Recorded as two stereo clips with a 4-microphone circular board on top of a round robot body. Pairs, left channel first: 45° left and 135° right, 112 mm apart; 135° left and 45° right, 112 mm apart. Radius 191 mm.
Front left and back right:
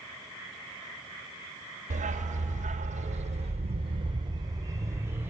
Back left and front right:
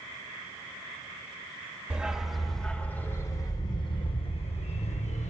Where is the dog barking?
125° right, 1.3 m; by 5.3 s 155° left, 1.5 m.